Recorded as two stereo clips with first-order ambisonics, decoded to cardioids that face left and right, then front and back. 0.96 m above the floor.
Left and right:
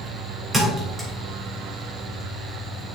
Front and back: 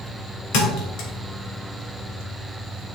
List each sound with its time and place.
0.5 s a thud: 10° right, 2 m